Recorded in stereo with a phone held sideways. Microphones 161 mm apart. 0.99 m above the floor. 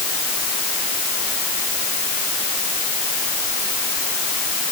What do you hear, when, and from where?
Only background noise.